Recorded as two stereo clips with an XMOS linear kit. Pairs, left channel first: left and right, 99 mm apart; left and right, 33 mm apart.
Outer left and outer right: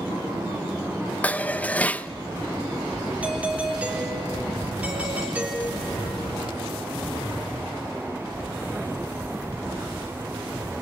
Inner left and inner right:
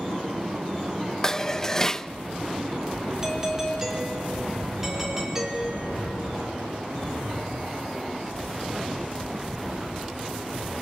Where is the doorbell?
15° right (ahead or behind), 4 m.